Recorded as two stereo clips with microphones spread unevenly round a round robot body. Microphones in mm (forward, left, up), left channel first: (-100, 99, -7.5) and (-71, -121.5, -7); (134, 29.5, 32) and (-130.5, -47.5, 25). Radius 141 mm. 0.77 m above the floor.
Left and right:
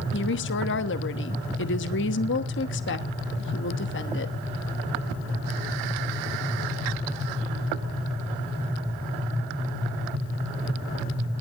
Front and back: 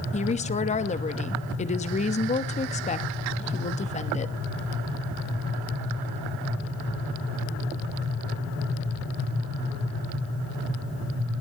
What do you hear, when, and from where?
0.1 s a woman speaking: 75° left, 1.1 m